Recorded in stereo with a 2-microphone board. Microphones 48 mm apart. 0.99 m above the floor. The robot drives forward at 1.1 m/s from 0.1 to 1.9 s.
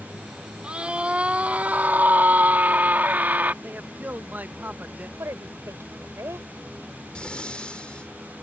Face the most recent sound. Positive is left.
turn(degrees=20)  # may be behind; listen again after turning